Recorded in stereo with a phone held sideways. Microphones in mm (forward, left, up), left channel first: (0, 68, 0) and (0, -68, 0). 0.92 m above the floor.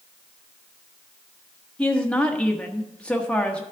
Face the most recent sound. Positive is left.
turn(degrees=10)  # may be behind; listen again after turning